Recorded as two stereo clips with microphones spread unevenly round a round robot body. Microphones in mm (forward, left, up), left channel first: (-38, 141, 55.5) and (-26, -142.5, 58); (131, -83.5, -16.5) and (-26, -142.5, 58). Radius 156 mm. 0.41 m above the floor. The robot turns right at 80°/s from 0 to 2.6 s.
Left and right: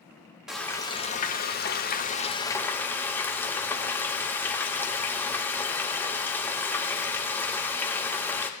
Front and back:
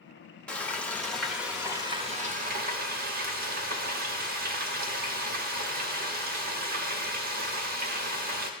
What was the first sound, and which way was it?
Frying, straight ahead.